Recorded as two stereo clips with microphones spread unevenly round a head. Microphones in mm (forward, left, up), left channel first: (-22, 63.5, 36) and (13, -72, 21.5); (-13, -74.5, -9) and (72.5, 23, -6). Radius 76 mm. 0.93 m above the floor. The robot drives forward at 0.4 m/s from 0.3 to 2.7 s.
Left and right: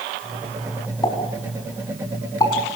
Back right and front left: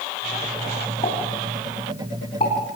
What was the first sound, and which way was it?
A pop, 170° left.